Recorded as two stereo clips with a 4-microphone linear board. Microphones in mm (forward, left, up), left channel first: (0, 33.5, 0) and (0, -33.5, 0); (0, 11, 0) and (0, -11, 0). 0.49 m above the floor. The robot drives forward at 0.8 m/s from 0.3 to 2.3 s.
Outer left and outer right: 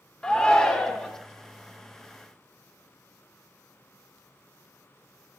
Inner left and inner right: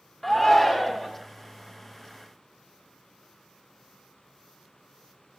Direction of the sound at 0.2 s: 15° left (ahead or behind).